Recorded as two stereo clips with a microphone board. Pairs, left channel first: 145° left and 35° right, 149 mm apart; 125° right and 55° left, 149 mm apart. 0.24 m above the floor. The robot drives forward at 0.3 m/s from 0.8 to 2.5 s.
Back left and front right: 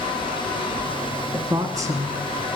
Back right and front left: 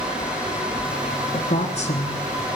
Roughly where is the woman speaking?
Right.